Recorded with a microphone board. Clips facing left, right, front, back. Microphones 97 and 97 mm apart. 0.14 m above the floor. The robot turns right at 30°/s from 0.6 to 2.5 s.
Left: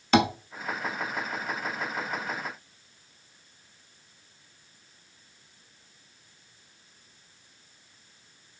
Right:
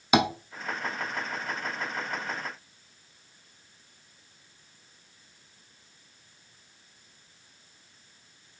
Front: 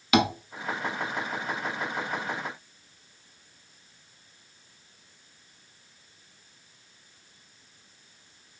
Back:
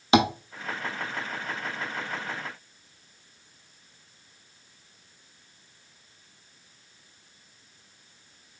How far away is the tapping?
About 0.6 m.